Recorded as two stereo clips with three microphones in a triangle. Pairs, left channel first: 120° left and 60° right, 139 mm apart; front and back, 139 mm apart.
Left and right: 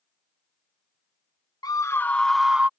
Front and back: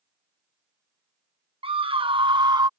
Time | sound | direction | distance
1.6 | a scream | 165° left | ?